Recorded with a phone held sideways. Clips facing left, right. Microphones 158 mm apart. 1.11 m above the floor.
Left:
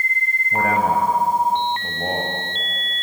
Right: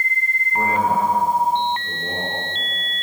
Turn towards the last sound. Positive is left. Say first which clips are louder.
# left 1 dB
turn(degrees=85)